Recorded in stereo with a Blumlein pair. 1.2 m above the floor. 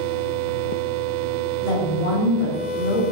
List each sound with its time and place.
1.6 s a woman speaking: 45° left, 1.8 m